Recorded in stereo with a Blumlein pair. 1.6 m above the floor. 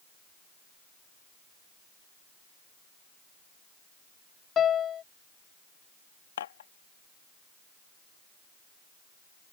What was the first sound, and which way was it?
A piano, 25° left.